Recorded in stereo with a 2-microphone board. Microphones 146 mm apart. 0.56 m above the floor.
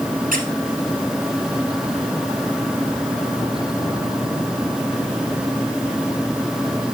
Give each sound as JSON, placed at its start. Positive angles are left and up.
{"t": 0.3, "sound": "a squeak", "side_deg": -65, "distance_m": 1.9}